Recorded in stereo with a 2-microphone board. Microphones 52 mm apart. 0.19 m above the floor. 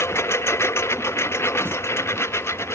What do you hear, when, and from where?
0.0 s a lawn mower: 55° left (ahead or behind)
1.6 s singing: 50° right (ahead or behind)